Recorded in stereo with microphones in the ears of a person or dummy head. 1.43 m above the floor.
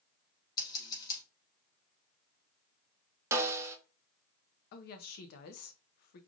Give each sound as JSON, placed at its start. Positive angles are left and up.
{"t": 0.6, "sound": "scissors", "side_deg": 20, "distance_m": 1.9}
{"t": 3.3, "sound": "a snare drum", "side_deg": -15, "distance_m": 0.8}
{"t": 4.7, "sound": "a woman speaking", "side_deg": 55, "distance_m": 0.8}